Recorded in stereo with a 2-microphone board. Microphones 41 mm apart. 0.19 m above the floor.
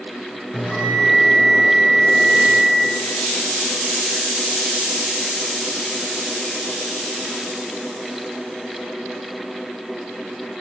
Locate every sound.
0.5 s a bell: 30° left (ahead or behind), 3.5 m